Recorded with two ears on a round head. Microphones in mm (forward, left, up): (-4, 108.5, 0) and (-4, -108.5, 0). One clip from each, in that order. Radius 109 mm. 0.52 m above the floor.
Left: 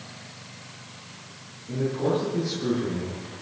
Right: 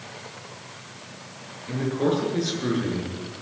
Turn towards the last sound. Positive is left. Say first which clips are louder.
# right 1 dB
turn(degrees=-85)